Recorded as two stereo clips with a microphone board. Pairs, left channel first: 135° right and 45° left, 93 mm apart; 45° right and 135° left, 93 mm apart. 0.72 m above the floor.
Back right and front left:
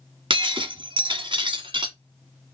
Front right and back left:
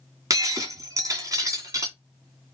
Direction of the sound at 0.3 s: 80° left.